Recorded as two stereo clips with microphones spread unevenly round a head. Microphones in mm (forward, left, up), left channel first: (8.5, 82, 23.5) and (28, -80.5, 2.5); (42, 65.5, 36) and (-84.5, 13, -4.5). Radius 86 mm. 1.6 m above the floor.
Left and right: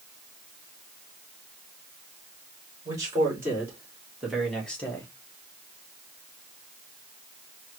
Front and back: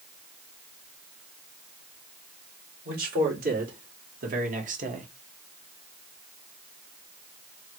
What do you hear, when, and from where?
2.9 s a man speaking: 155° right, 2 m; by 5.1 s 175° left, 1.1 m